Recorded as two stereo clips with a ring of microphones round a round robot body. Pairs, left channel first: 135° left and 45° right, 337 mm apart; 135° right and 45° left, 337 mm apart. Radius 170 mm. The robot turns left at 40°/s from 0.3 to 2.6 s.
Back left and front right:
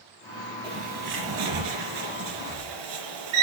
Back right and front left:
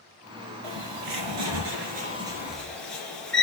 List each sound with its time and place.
0.6 s a bird: 30° left, 3 m; by 3.4 s 45° right, 3 m